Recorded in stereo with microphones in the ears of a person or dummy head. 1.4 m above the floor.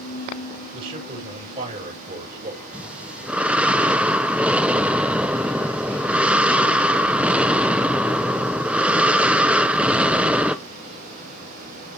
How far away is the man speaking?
About 6.5 m.